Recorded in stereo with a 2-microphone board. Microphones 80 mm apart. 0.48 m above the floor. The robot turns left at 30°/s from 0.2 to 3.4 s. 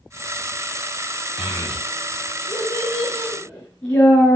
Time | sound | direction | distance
1.4 | a child speaking | 85° left | 3 m